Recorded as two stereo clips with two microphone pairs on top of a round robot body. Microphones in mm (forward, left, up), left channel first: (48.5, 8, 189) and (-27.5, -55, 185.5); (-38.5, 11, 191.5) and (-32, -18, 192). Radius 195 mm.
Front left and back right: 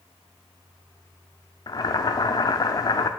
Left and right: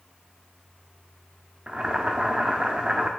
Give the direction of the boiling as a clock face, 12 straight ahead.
12 o'clock.